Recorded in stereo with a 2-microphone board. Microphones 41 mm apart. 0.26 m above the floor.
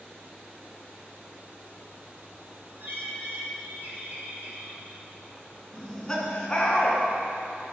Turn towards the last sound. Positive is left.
turn(degrees=20)  # may be behind; listen again after turning